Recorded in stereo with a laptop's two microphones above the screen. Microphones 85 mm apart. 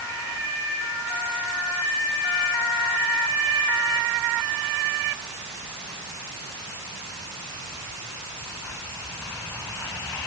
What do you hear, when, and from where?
Only background noise.